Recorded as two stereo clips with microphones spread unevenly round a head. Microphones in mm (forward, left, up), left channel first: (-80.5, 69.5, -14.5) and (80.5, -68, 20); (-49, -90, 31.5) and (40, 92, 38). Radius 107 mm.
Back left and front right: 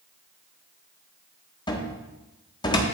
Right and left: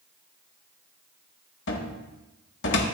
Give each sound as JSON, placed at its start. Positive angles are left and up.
{"t": 1.7, "sound": "a cupboard door", "azimuth_deg": -145, "distance_m": 1.6}